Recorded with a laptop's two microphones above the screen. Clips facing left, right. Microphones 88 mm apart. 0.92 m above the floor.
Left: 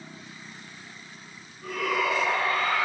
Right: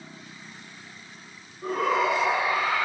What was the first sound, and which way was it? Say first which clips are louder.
A shout: right 4 dB; 35° right (ahead or behind).